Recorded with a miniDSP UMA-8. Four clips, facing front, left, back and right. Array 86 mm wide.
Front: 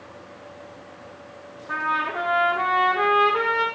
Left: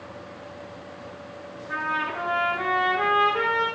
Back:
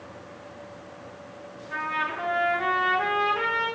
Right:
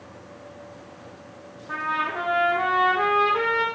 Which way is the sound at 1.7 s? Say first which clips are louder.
Right 1 dB, front 4 dB; 25° right.